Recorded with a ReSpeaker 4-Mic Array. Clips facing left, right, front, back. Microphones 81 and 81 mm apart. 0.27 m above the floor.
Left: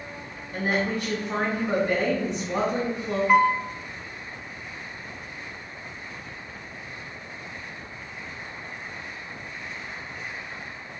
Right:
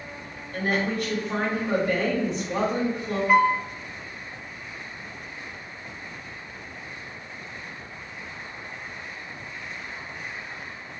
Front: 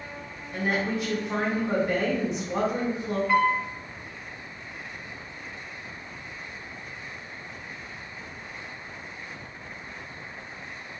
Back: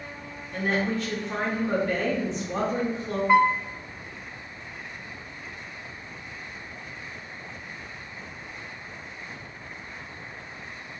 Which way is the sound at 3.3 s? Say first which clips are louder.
Even, back 3 dB; 175° left.